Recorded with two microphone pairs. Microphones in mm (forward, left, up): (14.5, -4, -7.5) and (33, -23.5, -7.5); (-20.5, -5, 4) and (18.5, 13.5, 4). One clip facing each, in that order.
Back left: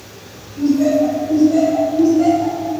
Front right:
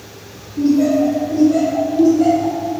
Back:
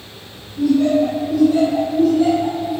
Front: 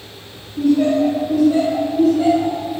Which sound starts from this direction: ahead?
Laughter, at 0.6 s.